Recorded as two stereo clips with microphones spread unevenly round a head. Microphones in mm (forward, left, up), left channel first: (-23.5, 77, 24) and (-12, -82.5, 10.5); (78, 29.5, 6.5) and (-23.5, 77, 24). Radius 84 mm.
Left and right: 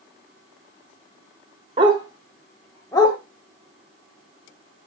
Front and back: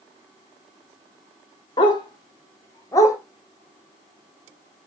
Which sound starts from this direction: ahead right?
A dog barking, at 1.8 s.